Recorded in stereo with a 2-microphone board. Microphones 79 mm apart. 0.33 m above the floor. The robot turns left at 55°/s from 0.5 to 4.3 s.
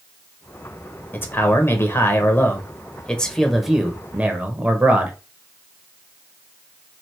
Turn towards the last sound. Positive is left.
turn(degrees=-20)  # may be behind; listen again after turning